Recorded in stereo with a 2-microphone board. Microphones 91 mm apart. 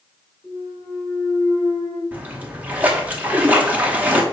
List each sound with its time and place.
0.4 s a clunk: centre (ahead or behind), 1.8 m
2.1 s a splash: 15° right (ahead or behind), 0.8 m